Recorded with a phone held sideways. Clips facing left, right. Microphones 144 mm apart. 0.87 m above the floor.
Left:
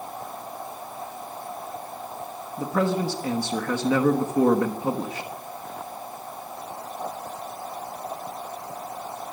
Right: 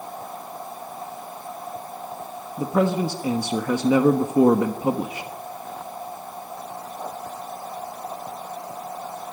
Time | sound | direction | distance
2.6 | a man speaking | 15° right (ahead or behind) | 1.2 m